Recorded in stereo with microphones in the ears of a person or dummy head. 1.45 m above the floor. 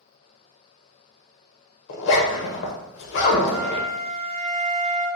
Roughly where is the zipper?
Left.